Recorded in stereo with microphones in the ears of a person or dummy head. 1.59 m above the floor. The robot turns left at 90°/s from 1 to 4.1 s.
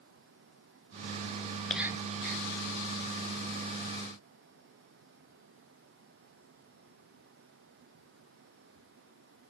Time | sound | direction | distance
1.7 | whispering | 5° left | 0.5 m